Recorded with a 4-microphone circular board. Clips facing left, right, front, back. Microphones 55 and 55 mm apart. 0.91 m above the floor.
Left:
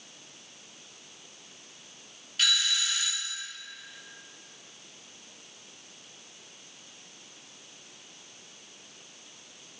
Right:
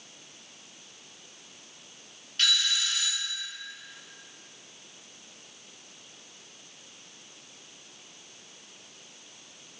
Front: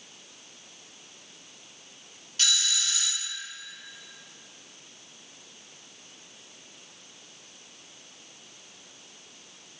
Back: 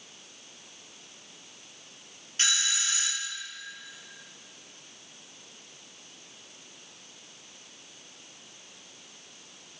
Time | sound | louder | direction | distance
2.4 | a doorbell | even, back 1 dB | 175° left | 1.0 m